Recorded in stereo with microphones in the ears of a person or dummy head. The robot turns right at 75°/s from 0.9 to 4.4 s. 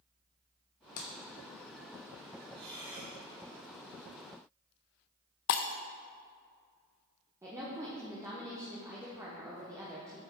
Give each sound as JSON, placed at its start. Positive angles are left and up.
{"t": 1.0, "sound": "a clap", "side_deg": 45, "distance_m": 0.9}
{"t": 2.5, "sound": "breathing", "azimuth_deg": -30, "distance_m": 3.0}
{"t": 5.5, "sound": "breaking glass", "side_deg": 55, "distance_m": 0.6}
{"t": 7.4, "sound": "a woman speaking", "side_deg": -15, "distance_m": 1.1}